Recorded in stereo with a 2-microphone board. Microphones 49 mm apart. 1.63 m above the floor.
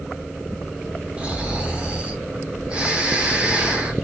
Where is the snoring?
25° right (ahead or behind), 0.7 m.